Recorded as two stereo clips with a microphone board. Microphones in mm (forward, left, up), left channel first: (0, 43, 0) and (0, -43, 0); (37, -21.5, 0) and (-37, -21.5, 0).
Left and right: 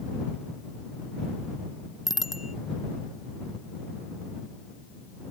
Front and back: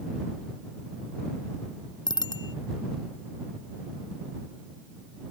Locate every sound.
2.1 s a bicycle bell: 5° right